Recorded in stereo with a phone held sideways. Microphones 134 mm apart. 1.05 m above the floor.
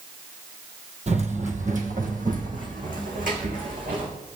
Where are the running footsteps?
55° right (ahead or behind), 1.9 m; by 4.1 s 75° right (ahead or behind), 5 m.